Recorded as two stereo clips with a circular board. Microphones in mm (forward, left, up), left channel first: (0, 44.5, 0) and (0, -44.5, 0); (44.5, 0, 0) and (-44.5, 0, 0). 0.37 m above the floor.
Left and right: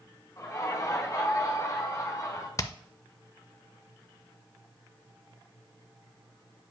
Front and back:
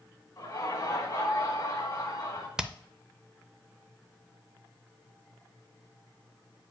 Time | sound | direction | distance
0.4 | laughter | 35° left | 3.5 m
2.6 | hammering | 100° left | 0.5 m